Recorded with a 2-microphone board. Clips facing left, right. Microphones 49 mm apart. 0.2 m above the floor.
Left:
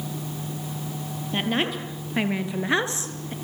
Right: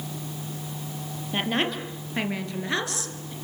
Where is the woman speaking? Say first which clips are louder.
Left 1 dB; centre (ahead or behind), 4 m; by 3.3 s 40° left (ahead or behind), 2.5 m.